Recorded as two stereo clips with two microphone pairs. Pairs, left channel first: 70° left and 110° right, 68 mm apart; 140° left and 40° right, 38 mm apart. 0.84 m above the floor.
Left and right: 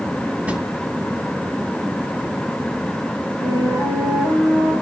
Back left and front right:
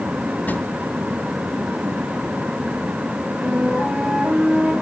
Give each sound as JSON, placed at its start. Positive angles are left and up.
{"t": 0.5, "sound": "a drawer", "azimuth_deg": 180, "distance_m": 2.5}
{"t": 3.4, "sound": "a flute", "azimuth_deg": -90, "distance_m": 7.0}